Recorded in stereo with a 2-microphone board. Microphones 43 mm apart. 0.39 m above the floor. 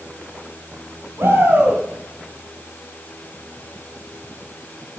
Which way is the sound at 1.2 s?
65° right (ahead or behind).